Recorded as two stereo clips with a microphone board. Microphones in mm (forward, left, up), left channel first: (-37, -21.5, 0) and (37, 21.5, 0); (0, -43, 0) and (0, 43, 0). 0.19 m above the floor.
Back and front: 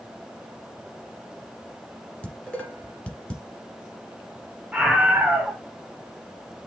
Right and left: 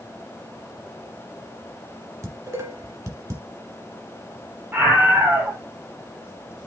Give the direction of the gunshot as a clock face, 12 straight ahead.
No gunshot in this recording.